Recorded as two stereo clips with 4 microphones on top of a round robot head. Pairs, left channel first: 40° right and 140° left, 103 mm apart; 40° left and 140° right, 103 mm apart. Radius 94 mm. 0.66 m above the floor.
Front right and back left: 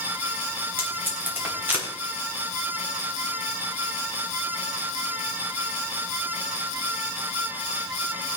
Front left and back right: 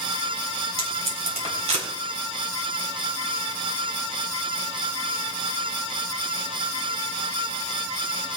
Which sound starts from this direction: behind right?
Tape being pulled, at 0.8 s.